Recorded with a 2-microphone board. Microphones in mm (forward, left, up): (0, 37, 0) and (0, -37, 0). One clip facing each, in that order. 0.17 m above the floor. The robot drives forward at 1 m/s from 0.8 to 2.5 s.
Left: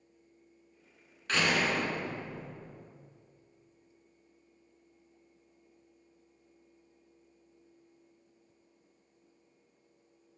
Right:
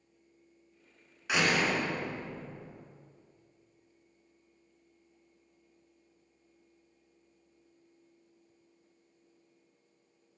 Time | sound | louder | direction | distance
1.3 | a door slam | right 1 dB | 15° right (ahead or behind) | 1.1 m